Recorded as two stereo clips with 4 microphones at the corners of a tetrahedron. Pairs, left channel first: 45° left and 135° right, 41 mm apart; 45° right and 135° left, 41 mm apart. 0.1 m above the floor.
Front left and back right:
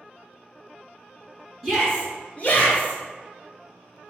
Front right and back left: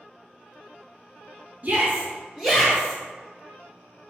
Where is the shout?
130° left, 1.3 m; by 3.0 s 20° left, 1.8 m.